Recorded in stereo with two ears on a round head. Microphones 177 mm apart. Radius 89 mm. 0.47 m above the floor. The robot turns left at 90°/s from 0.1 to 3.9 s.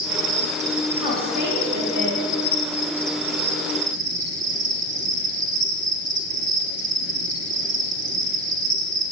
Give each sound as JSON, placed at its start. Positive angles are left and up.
{"t": 0.0, "sound": "an insect", "azimuth_deg": -90, "distance_m": 0.7}
{"t": 1.0, "sound": "a woman speaking", "azimuth_deg": -30, "distance_m": 2.5}